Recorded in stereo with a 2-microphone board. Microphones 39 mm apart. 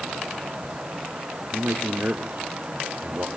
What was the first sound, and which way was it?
A man speaking, 50° right (ahead or behind).